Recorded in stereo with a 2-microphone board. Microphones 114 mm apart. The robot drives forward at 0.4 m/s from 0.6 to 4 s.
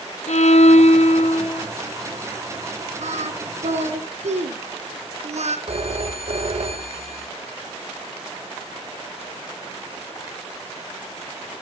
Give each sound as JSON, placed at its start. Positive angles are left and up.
{"t": 0.3, "sound": "a violin", "side_deg": 75, "distance_m": 0.7}
{"t": 3.0, "sound": "singing", "side_deg": -80, "distance_m": 1.7}
{"t": 5.7, "sound": "a phone ringing", "side_deg": -60, "distance_m": 1.5}